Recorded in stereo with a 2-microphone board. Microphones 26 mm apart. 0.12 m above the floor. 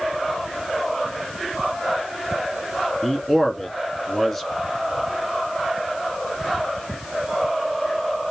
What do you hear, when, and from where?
3.0 s a man speaking: 15° left (ahead or behind), 1.3 m